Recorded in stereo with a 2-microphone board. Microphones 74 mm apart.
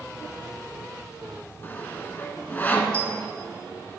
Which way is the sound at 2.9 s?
20° left (ahead or behind).